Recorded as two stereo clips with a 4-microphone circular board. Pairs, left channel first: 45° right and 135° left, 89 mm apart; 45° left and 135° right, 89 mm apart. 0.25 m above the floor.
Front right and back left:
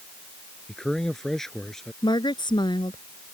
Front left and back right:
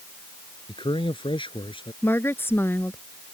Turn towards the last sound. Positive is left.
turn(degrees=-20)